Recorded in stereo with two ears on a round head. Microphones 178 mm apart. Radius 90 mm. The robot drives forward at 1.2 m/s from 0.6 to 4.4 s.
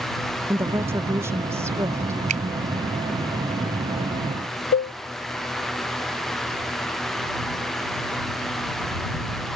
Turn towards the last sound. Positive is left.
turn(degrees=55)  # may be behind; listen again after turning